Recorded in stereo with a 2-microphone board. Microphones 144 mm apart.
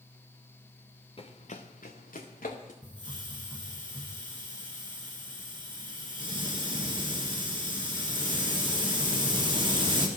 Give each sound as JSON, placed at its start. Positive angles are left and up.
{"t": 1.2, "sound": "running footsteps", "side_deg": 40, "distance_m": 1.1}
{"t": 2.8, "sound": "a hiss", "side_deg": -35, "distance_m": 1.9}